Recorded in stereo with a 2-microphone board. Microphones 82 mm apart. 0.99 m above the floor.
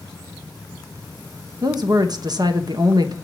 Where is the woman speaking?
55° right (ahead or behind), 0.9 m.